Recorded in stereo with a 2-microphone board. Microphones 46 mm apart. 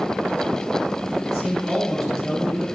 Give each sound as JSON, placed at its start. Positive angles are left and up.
{"t": 1.2, "sound": "a man speaking", "side_deg": -5, "distance_m": 5.5}